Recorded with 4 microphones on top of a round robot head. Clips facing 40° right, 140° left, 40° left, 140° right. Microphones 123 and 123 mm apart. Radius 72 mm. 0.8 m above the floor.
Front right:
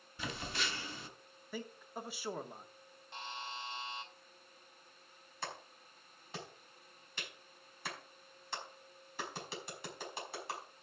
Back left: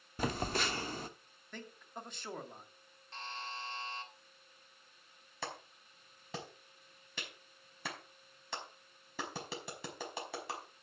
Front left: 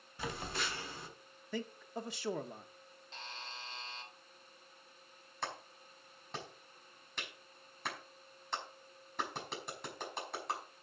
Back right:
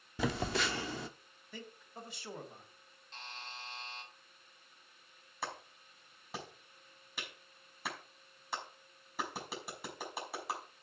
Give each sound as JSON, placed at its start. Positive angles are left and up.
{"t": 0.2, "sound": "a phone buzzing", "azimuth_deg": -170, "distance_m": 0.9}
{"t": 1.5, "sound": "a man speaking", "azimuth_deg": 40, "distance_m": 1.5}
{"t": 3.1, "sound": "a buzzer", "azimuth_deg": 35, "distance_m": 3.0}
{"t": 5.4, "sound": "a clap", "azimuth_deg": 135, "distance_m": 5.0}